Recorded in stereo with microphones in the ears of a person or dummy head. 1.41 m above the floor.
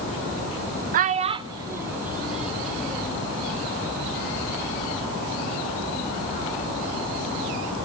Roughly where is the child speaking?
Right.